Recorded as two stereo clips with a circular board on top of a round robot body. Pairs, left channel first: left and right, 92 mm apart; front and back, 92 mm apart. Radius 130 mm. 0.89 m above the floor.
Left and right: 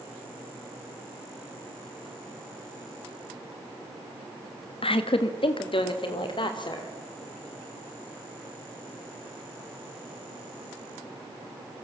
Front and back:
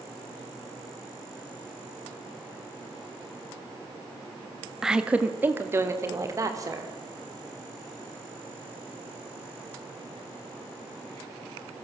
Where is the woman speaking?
95° left, 1.8 m; by 6.9 s 125° left, 4 m.